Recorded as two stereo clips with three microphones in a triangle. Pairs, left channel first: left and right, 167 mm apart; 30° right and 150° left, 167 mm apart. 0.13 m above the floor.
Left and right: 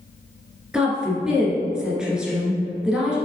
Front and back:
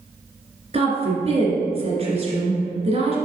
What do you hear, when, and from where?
0.7 s a woman speaking: 175° right, 1.8 m